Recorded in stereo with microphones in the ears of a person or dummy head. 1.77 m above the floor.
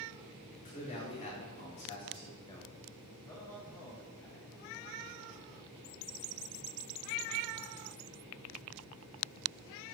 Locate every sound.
0.7 s a man speaking: 40° left (ahead or behind), 3.5 m; by 2.7 s 20° left (ahead or behind), 1.8 m
3.2 s a man speaking: 15° left (ahead or behind), 1.8 m